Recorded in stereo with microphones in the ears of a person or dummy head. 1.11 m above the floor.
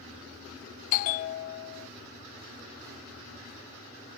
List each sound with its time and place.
0.9 s a bell: 45° left (ahead or behind), 0.5 m